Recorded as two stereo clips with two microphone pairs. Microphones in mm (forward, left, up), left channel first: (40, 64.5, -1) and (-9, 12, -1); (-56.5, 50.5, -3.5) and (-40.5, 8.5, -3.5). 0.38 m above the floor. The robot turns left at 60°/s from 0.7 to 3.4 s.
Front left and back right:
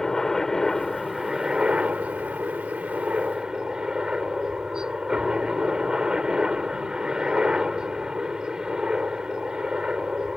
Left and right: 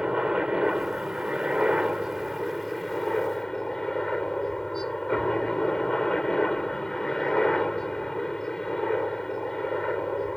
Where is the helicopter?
30° right; by 10.4 s 170° left.